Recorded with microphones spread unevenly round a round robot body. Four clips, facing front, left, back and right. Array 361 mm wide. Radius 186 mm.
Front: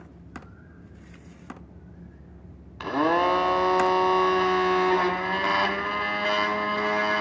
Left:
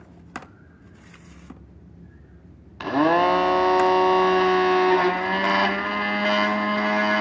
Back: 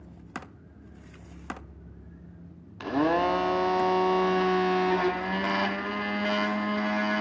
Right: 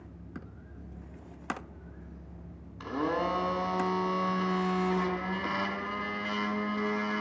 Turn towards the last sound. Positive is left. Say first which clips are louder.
# left 12 dB, front 2 dB
turn(degrees=70)